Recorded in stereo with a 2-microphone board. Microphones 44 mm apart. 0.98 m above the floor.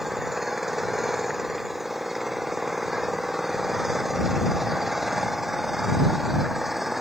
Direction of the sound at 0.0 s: 5° right (ahead or behind).